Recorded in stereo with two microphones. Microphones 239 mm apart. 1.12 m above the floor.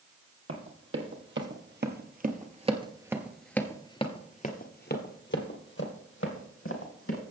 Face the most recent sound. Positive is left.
turn(degrees=70)  # may be behind; listen again after turning